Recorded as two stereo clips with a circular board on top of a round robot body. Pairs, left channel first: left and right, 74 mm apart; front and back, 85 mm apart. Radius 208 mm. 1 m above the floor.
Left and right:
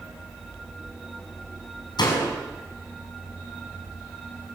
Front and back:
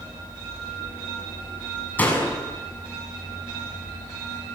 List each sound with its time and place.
2.0 s a door slam: 70° left, 7.5 m